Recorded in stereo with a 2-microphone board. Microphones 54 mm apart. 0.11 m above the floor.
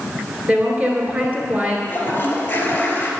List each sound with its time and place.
0.5 s a woman speaking: 30° right (ahead or behind), 1.8 m
1.9 s a toilet flushing: 30° left (ahead or behind), 2 m